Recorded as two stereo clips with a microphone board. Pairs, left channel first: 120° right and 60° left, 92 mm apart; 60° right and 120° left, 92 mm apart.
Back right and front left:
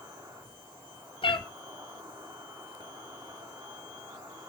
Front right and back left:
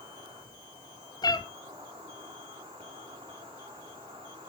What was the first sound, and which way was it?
An insect, 105° left.